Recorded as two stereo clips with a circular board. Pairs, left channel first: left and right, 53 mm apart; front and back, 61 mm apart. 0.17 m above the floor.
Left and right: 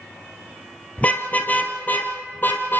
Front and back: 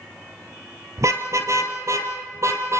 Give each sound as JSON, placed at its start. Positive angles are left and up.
{"t": 1.0, "sound": "a car horn", "azimuth_deg": 150, "distance_m": 2.5}